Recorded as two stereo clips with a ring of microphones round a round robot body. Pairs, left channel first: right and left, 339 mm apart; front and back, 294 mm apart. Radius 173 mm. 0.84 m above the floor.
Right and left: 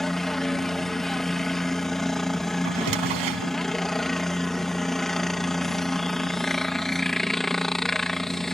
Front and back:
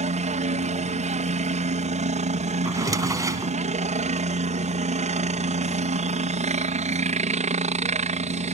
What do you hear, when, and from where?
0.0 s a helicopter: straight behind
2.6 s a drawer: 100° left